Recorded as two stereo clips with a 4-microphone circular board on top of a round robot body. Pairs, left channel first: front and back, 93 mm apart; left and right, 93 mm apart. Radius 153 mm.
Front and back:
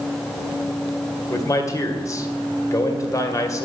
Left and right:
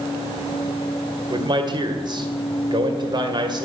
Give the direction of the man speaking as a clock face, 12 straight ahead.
2 o'clock.